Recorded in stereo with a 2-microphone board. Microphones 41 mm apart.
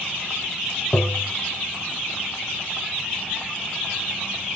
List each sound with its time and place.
0.9 s tapping: 40° left (ahead or behind)